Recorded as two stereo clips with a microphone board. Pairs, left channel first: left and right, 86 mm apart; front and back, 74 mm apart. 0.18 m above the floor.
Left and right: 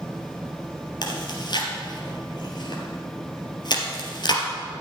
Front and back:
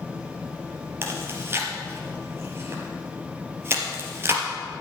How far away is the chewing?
About 2.5 m.